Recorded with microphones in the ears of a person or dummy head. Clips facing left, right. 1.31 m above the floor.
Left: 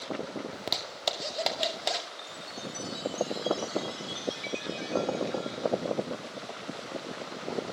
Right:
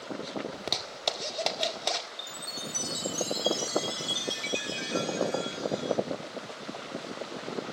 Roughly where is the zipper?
Centre.